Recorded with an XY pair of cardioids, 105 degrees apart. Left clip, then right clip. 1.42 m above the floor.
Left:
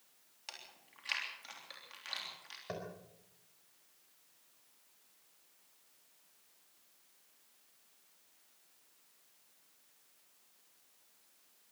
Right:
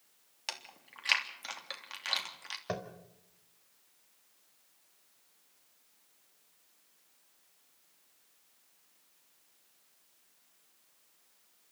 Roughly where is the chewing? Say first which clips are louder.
Right 8 dB; ahead right.